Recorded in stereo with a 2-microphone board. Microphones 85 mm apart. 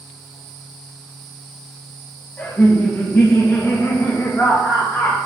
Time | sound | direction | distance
2.4 | laughter | 25° left (ahead or behind) | 1.3 m